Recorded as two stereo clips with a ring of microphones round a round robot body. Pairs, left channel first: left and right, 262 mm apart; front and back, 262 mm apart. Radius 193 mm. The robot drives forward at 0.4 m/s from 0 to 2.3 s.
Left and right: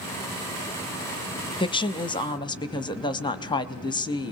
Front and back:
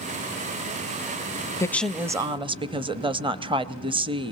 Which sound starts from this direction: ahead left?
A woman speaking, at 1.6 s.